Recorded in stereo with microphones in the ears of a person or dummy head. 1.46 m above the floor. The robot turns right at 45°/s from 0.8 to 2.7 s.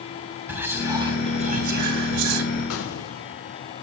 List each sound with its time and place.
0.5 s whispering: 170° right, 1.2 m; by 2.4 s 100° right, 1.2 m
2.7 s an explosion: 80° left, 1.1 m